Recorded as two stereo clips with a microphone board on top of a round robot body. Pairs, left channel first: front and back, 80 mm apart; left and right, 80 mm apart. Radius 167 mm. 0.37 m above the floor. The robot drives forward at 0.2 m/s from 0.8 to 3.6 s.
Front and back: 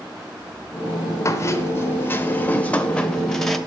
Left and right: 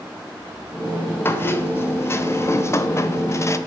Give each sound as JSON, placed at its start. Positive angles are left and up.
{"t": 1.2, "sound": "a squeak", "azimuth_deg": 35, "distance_m": 0.9}